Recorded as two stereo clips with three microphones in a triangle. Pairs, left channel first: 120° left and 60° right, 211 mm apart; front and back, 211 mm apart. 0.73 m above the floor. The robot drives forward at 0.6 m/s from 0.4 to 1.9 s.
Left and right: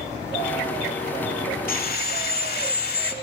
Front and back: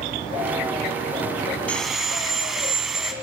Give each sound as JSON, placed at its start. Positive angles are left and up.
{"t": 1.7, "sound": "sawing", "azimuth_deg": 80, "distance_m": 0.9}